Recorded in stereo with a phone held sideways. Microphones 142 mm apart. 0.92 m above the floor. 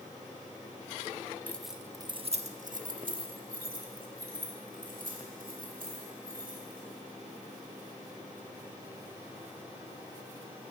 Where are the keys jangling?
10° left (ahead or behind), 0.9 m; by 6.8 s 85° right, 5 m.